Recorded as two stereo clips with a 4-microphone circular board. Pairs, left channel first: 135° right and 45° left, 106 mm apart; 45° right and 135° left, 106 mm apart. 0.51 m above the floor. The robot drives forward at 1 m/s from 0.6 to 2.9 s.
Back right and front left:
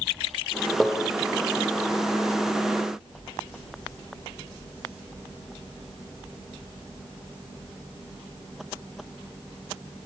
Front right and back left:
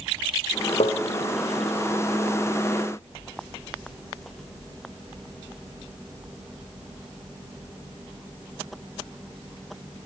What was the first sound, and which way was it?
Tapping, 45° right.